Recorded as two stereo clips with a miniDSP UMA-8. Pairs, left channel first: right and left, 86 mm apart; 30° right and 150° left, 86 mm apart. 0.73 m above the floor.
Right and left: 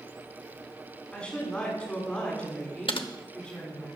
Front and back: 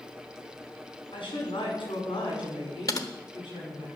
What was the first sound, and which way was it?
A woman speaking, 10° right.